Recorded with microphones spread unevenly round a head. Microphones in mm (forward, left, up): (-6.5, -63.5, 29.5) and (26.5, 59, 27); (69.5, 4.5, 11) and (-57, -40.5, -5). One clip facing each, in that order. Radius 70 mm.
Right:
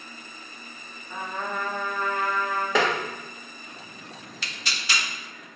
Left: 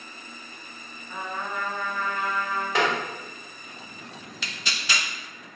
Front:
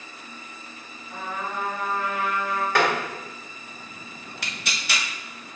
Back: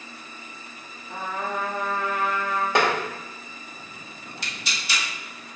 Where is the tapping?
90° right, 1.6 m.